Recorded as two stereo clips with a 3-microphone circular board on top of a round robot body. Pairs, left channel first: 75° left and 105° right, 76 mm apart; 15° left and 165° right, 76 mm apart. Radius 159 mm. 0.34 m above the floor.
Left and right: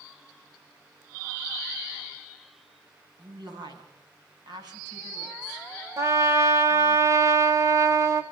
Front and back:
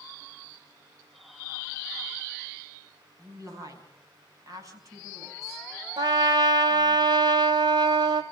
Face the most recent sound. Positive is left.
turn(degrees=-155)